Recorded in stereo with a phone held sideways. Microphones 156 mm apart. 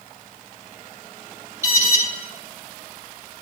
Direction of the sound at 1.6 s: 20° right (ahead or behind).